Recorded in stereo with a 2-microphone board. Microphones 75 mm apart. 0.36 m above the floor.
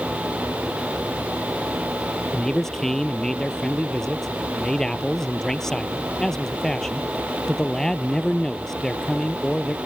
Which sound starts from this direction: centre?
A man speaking, at 2.3 s.